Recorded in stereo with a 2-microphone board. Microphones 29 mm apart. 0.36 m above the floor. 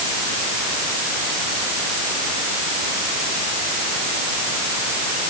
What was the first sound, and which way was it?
Only background noise.